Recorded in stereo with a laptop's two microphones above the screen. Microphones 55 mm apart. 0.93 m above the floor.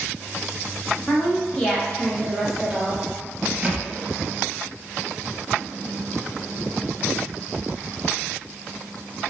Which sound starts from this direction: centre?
A thud, at 3.6 s.